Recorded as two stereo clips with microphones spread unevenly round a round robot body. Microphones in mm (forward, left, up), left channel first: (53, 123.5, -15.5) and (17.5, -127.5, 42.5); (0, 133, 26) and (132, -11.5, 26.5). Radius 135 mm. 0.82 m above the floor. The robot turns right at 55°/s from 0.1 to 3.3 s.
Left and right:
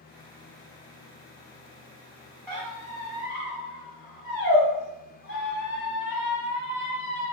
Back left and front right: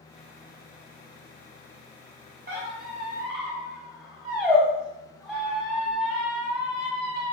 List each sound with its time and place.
2.5 s a squeak: 5° right, 1.9 m; by 7.3 s 40° left, 1.9 m